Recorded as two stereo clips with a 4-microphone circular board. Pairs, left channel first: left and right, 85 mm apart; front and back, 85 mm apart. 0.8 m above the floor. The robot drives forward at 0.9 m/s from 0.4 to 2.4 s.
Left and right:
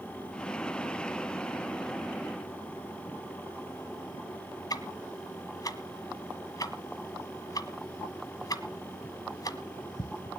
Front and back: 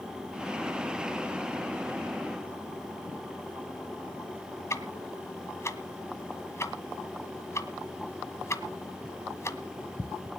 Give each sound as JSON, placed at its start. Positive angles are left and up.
{"t": 4.7, "sound": "ticking", "azimuth_deg": 55, "distance_m": 1.5}